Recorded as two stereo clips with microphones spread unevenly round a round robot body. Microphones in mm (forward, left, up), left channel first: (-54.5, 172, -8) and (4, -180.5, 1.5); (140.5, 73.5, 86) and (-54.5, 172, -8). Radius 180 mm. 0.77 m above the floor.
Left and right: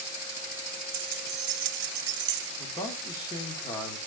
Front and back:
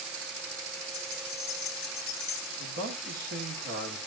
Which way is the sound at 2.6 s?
Straight behind.